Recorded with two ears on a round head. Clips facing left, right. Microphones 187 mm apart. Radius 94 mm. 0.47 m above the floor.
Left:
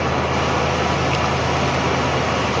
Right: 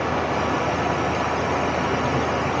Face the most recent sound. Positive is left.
No sound to turn to.